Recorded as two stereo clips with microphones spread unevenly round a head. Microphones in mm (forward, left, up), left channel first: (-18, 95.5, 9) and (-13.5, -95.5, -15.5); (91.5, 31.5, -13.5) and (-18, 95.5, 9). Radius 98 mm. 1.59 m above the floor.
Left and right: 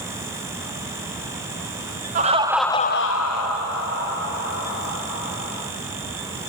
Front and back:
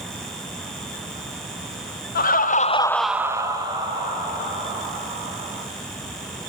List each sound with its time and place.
2.1 s laughter: 35° right, 0.9 m; by 5.6 s 105° left, 4 m